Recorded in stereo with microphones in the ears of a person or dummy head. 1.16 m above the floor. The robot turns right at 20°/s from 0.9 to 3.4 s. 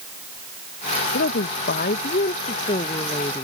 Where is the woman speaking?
115° left; by 3.4 s 160° left.